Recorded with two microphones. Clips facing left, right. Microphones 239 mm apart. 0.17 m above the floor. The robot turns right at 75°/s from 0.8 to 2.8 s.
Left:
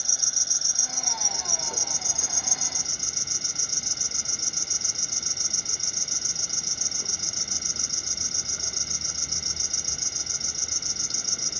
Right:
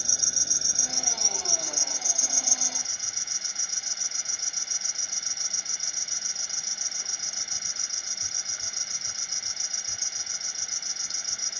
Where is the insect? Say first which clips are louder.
Right 3 dB; 30° right; by 11.6 s 120° left.